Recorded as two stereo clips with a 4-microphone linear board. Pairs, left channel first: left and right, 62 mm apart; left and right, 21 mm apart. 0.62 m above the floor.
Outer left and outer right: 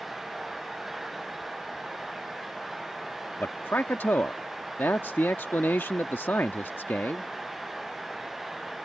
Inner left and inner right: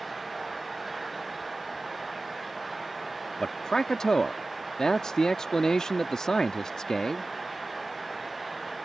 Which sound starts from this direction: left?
A man speaking, at 3.4 s.